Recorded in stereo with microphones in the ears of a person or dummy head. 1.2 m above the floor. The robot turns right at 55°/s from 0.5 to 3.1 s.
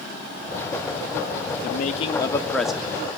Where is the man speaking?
120° left, 1.6 m; by 3.0 s 165° right, 1.6 m.